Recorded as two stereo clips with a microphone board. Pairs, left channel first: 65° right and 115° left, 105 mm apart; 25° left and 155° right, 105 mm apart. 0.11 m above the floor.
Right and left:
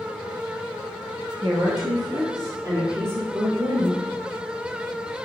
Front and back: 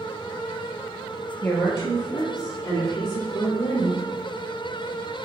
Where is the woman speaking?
85° left, 1.9 m; by 4.0 s 45° left, 2.5 m.